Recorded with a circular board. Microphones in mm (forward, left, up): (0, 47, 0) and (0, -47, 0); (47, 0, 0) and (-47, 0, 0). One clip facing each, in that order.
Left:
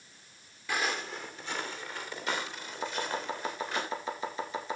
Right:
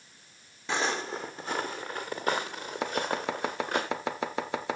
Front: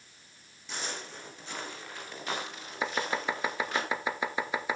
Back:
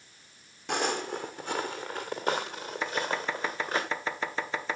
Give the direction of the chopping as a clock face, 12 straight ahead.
3 o'clock.